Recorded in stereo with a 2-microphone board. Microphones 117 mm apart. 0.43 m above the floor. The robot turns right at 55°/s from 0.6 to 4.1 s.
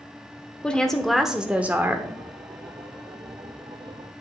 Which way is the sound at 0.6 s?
10° left (ahead or behind).